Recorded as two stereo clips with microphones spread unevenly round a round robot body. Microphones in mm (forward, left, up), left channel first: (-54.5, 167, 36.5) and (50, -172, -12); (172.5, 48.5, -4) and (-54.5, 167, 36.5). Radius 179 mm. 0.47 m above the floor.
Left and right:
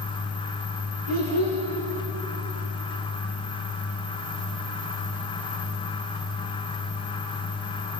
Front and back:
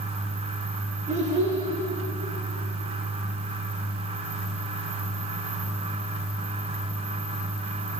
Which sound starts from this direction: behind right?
A child speaking, at 1.1 s.